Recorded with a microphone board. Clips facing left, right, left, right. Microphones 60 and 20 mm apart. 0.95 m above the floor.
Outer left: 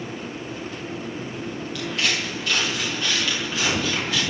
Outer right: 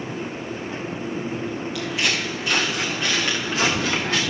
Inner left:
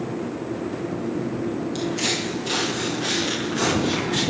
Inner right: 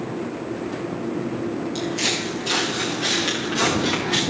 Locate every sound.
1.8 s footsteps: centre (ahead or behind), 3.5 m; by 4.2 s 40° right (ahead or behind), 5.5 m